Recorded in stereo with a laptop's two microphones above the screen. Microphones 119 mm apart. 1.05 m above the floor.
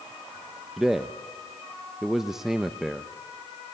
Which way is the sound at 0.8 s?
5° right (ahead or behind).